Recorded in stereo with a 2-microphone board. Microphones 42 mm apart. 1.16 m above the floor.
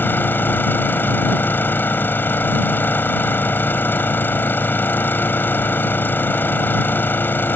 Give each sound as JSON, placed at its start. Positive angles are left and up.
{"t": 0.0, "sound": "an engine running", "side_deg": 55}